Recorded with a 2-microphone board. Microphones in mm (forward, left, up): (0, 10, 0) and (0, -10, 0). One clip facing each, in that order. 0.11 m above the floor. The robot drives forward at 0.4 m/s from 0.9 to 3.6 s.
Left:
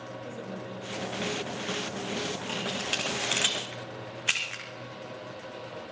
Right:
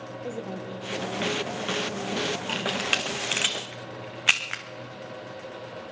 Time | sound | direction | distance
0.2 | a woman speaking | 60° right (ahead or behind) | 2.5 m
2.5 | a camera shutter | 30° right (ahead or behind) | 2.5 m